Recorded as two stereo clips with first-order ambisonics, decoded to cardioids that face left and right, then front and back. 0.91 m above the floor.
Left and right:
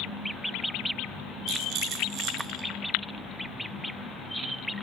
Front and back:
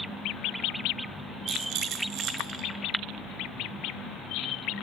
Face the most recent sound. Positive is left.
turn(degrees=-140)